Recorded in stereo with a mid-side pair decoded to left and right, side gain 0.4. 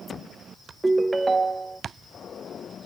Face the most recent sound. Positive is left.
turn(degrees=-25)